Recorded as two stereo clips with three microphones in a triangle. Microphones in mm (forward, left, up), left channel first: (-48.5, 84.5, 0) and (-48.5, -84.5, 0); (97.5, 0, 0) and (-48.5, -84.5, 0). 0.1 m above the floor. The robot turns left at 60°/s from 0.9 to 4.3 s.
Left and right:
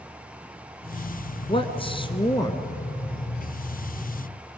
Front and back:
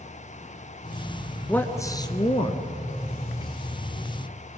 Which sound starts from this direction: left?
A man speaking, at 1.5 s.